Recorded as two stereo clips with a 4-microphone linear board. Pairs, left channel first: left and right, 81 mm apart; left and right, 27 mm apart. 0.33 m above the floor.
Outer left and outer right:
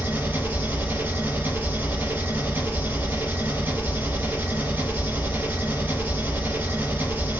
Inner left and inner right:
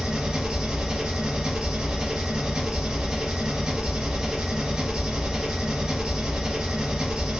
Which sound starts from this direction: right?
An engine running, at 0.0 s.